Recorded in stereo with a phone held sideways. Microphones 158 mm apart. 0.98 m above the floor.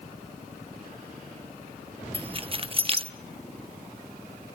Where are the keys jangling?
35° right (ahead or behind), 1.1 m.